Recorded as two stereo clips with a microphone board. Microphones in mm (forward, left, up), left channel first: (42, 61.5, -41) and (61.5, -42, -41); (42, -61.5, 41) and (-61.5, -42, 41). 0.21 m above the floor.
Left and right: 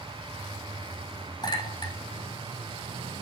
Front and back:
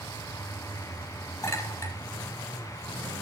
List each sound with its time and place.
1.4 s a clink: 50° left, 5.5 m